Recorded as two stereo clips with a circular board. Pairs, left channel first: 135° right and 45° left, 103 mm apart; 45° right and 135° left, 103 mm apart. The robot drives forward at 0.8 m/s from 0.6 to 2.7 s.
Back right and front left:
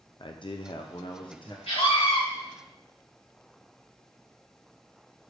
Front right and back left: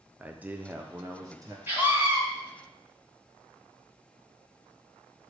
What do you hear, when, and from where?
0.2 s a man speaking: 150° right, 0.5 m; by 1.6 s 170° right, 1.2 m
1.7 s a scream: 155° right, 2.5 m; by 2.2 s 160° right, 3 m